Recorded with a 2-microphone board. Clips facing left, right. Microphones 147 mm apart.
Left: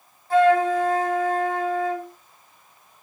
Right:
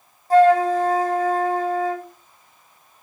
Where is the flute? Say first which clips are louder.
Right 3 dB; 40° right (ahead or behind), 1.5 m.